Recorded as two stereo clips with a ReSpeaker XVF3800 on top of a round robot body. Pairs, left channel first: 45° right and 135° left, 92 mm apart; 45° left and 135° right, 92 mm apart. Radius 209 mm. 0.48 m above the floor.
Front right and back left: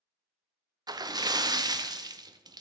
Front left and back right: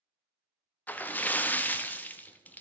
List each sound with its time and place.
0.9 s a splash: 110° left, 0.6 m